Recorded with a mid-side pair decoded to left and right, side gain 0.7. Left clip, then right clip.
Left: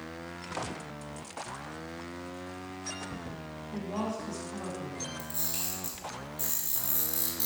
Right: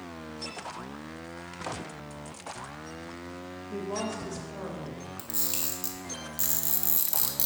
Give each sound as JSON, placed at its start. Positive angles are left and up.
{"t": 3.7, "sound": "a woman speaking", "azimuth_deg": -55, "distance_m": 2.0}
{"t": 5.2, "sound": "a camera shutter", "azimuth_deg": -60, "distance_m": 1.4}